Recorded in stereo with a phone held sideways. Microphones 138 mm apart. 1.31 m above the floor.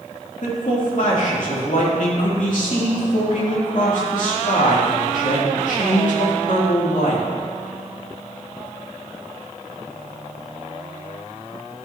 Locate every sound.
0.4 s a man speaking: 65° left (ahead or behind), 2.5 m